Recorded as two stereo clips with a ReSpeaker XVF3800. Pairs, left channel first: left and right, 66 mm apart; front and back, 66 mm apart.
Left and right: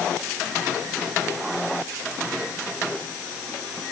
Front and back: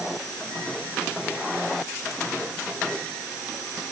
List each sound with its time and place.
Only background noise.